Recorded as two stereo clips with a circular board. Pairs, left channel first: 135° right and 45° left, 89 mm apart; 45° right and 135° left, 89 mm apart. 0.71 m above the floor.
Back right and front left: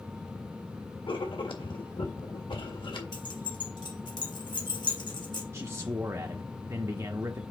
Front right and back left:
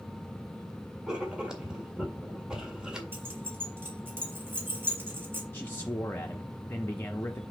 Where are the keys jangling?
160° right, 2 m.